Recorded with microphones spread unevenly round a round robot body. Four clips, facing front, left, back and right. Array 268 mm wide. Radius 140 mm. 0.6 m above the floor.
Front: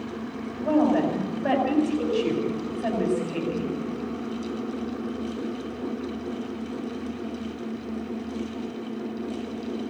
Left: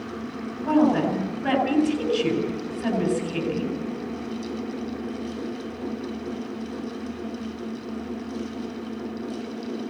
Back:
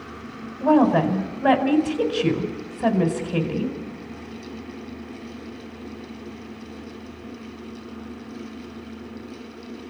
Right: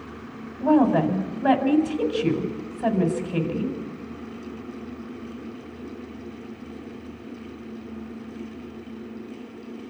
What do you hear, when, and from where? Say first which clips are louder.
0.6 s a woman speaking: right 1 dB, back 4 dB; 160° right, 4.5 m